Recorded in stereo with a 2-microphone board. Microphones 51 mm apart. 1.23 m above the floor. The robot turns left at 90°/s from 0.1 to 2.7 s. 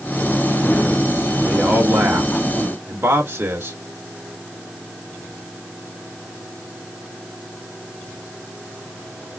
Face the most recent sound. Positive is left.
turn(degrees=-120)